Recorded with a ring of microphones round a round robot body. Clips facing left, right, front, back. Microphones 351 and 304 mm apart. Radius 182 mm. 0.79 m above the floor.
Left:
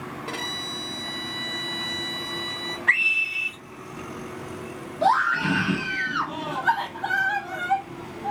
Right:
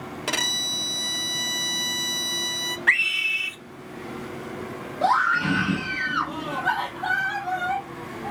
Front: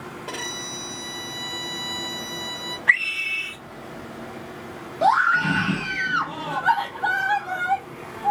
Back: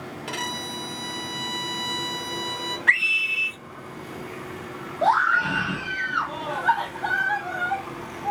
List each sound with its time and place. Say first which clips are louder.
0.3 s a violin: right 1 dB, back 2 dB; 120° right, 0.6 m
2.9 s a scream: right 1 dB, back 1 dB; 125° right, 1.4 m
5.0 s a scream: left 1 dB, front 3 dB; 10° left, 1.1 m